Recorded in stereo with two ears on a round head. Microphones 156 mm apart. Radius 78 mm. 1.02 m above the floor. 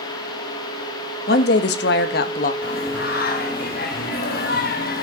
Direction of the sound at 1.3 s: 60° left (ahead or behind).